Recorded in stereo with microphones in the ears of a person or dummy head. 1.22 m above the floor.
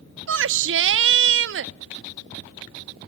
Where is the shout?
65° right (ahead or behind), 0.6 m.